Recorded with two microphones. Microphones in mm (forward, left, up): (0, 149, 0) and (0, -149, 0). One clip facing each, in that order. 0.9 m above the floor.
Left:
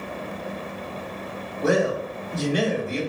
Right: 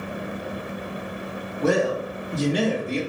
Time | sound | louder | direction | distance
1.6 | a man speaking | even | 45° right (ahead or behind) | 1.5 m